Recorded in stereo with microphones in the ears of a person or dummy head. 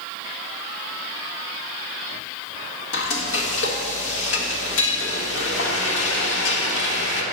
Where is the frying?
65° left (ahead or behind), 1.1 m.